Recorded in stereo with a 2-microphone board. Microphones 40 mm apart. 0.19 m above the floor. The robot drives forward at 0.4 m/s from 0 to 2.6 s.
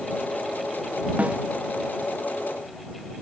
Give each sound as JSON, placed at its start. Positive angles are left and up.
{"t": 1.2, "sound": "a snare drum", "side_deg": -35}